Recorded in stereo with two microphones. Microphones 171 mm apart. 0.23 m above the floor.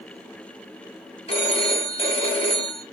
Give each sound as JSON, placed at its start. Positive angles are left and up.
{"t": 1.3, "sound": "a phone ringing", "side_deg": 35, "distance_m": 0.9}